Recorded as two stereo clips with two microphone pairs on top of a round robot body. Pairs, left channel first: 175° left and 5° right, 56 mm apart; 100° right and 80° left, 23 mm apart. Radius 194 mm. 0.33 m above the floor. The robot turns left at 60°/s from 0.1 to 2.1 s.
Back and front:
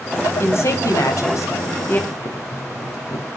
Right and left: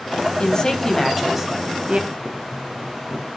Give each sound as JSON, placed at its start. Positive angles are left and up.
{"t": 0.4, "sound": "a woman speaking", "azimuth_deg": -140, "distance_m": 4.0}
{"t": 2.1, "sound": "boiling", "azimuth_deg": 175, "distance_m": 3.5}